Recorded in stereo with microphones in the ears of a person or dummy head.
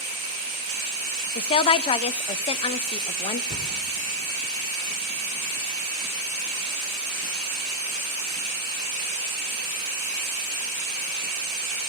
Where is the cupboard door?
55° left (ahead or behind), 3 m.